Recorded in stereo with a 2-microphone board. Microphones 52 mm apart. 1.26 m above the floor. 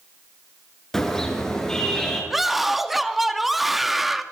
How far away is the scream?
About 2 m.